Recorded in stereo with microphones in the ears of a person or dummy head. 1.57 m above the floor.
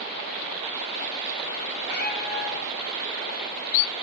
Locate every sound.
1.8 s a cat meowing: 60° left (ahead or behind), 7 m